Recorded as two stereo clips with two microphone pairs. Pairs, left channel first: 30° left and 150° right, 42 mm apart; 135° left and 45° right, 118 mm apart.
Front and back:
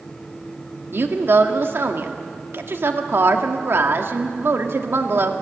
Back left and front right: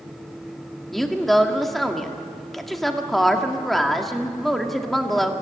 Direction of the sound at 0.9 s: 135° right.